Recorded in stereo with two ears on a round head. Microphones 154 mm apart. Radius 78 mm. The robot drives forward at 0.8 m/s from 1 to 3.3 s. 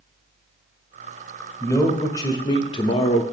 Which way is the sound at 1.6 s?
15° left (ahead or behind).